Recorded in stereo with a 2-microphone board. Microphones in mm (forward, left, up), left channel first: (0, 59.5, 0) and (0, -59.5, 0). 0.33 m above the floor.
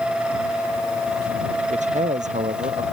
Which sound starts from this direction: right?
A man speaking, at 1.7 s.